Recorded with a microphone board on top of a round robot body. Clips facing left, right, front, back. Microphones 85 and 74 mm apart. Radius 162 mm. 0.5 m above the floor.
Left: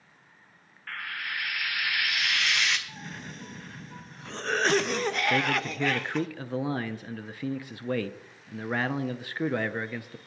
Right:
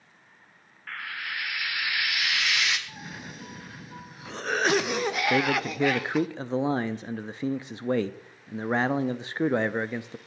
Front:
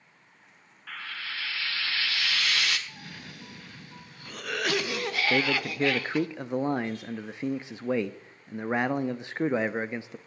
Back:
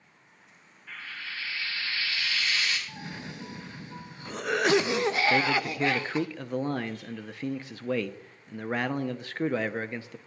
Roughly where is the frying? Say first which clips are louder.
Even, front 2 dB; ahead.